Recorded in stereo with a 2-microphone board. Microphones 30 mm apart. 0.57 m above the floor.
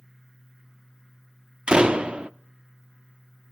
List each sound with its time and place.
1.7 s a door slam: 35° right (ahead or behind), 0.5 m